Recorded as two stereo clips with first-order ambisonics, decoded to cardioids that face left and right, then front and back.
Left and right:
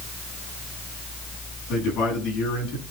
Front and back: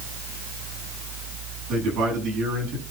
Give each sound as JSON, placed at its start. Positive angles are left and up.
{"t": 1.7, "sound": "a man speaking", "azimuth_deg": 130, "distance_m": 8.0}